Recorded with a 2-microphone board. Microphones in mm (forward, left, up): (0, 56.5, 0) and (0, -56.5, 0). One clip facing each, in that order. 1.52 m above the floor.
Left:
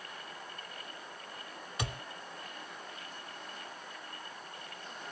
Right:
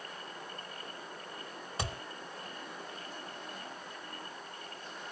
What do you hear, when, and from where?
1.8 s a thud: 35° right (ahead or behind), 3 m